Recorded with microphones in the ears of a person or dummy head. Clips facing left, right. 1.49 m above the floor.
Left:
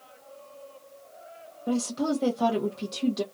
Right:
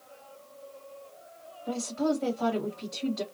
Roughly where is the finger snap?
No finger snap in this recording.